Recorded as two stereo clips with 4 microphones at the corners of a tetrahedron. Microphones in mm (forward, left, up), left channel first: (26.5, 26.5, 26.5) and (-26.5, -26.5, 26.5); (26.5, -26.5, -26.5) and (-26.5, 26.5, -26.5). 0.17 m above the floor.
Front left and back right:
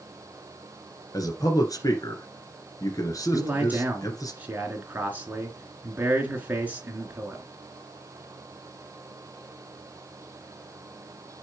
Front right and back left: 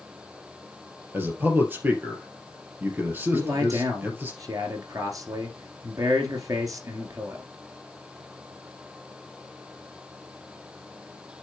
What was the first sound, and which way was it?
A man speaking, 75° left.